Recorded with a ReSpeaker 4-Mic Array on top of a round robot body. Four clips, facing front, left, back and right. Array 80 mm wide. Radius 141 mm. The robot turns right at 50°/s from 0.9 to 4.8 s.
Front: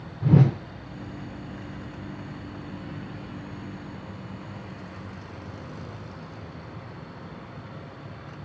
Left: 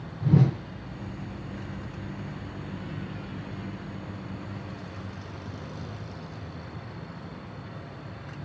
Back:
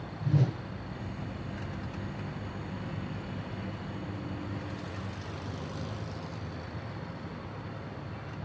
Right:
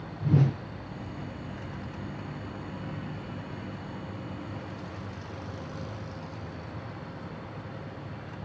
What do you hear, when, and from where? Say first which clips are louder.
0.2 s a whoosh: left 3 dB, front 10 dB; 5° left, 0.9 m